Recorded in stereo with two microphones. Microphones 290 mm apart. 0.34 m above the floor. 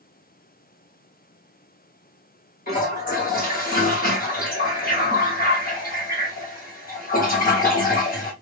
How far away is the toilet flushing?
About 1.7 m.